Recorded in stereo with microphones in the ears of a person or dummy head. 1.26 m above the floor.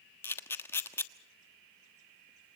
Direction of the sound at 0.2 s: 10° left (ahead or behind).